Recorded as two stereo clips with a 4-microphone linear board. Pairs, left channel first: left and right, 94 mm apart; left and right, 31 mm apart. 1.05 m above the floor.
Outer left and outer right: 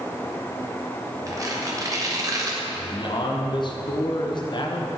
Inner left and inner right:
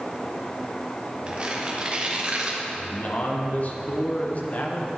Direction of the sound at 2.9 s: 50° left (ahead or behind).